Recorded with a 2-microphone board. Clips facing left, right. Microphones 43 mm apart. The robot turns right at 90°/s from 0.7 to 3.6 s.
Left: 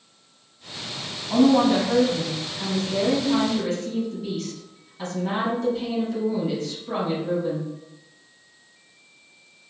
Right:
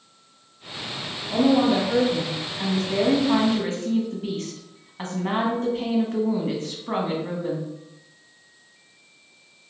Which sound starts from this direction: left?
A woman speaking, at 1.3 s.